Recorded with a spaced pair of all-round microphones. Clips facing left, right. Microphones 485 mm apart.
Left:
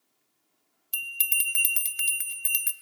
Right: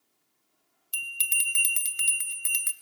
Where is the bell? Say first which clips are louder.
Even; 5° left (ahead or behind), 0.7 m.